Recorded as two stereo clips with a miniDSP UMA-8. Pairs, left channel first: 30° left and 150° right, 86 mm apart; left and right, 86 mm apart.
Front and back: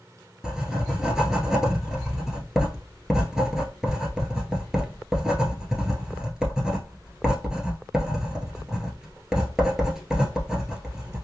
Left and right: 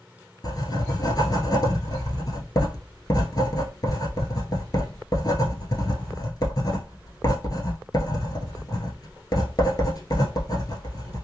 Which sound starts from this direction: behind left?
Writing, at 0.4 s.